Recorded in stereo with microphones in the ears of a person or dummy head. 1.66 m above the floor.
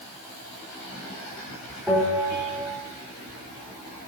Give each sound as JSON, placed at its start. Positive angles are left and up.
{"t": 1.9, "sound": "a bell", "side_deg": -10, "distance_m": 3.0}